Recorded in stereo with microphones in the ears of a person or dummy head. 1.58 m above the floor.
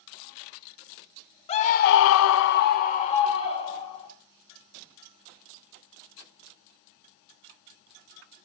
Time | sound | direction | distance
1.5 | a scream | 30° left (ahead or behind) | 1.1 m